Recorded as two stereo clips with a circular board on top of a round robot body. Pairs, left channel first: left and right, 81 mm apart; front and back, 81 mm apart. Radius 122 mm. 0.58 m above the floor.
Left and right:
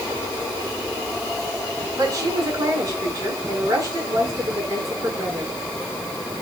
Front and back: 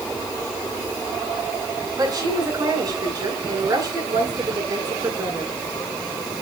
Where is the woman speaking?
135° right, 7.5 m.